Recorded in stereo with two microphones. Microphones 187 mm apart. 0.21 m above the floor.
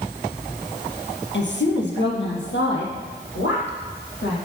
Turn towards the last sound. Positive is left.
turn(degrees=75)  # may be behind; listen again after turning